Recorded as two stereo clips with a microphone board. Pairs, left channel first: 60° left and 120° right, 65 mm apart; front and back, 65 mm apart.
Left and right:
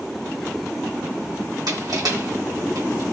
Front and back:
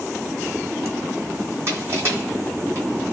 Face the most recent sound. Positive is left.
turn(degrees=-130)